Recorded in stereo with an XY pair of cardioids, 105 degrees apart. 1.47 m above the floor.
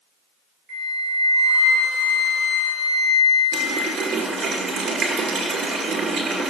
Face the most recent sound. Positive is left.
turn(degrees=-65)